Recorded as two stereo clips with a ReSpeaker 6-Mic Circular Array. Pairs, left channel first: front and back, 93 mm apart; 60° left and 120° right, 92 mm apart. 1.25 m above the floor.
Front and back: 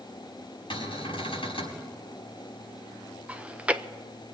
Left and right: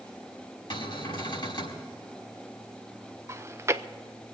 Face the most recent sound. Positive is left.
turn(degrees=-115)